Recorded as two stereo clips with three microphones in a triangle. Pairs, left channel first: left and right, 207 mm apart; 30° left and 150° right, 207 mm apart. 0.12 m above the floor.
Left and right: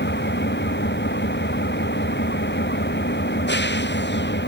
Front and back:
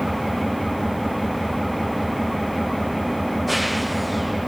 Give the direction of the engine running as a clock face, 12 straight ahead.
8 o'clock.